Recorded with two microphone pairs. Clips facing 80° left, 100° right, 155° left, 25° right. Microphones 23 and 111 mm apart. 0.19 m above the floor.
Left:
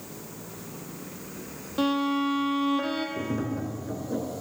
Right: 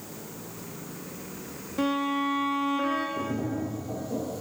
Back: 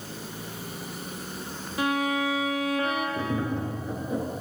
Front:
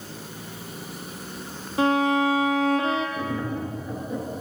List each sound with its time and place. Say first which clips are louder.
1.8 s a violin: left 2 dB, front 6 dB; 35° left, 1.4 m
3.2 s tapping: even, even; 90° left, 1.7 m